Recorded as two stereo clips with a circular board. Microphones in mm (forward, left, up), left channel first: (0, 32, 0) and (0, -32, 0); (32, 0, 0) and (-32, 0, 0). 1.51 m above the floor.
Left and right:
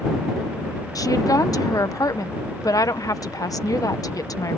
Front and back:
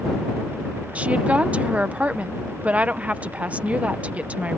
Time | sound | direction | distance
0.9 | a woman speaking | 110° left | ?